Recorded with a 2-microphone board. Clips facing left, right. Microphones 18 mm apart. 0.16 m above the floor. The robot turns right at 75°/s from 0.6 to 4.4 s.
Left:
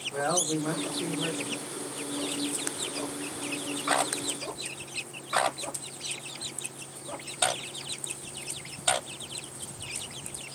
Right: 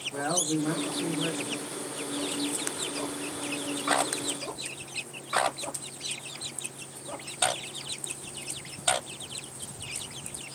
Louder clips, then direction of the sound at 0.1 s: Left 1 dB; 25° left (ahead or behind).